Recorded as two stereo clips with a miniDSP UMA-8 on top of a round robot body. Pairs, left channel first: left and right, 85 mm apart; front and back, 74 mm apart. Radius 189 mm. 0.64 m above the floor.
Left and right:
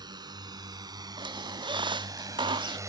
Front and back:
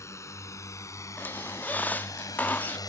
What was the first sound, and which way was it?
A drone, 50° right.